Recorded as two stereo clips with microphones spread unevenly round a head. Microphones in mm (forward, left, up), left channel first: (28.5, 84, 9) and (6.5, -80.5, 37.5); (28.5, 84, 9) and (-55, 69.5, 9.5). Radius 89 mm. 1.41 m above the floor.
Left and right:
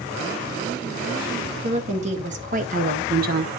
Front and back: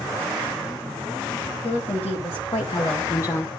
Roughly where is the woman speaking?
Ahead right.